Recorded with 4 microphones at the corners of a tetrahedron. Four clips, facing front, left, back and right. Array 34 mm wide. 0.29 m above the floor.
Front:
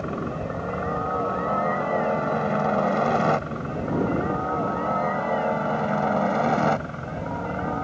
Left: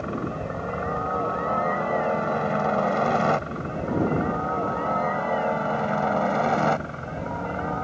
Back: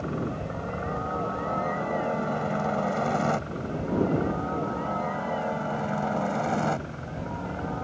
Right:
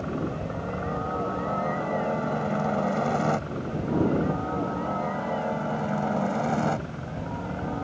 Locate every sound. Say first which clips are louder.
0.0 s a helicopter: left 1 dB, front 2 dB; 50° left